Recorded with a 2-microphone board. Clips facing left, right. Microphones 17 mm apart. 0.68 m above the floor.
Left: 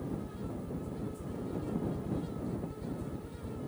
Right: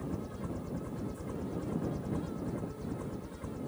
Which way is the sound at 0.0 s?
60° right (ahead or behind).